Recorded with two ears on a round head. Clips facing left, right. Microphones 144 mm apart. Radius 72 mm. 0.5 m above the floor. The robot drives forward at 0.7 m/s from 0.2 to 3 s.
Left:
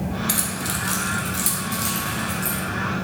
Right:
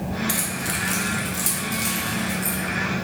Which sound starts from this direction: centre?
Keys jangling, at 0.3 s.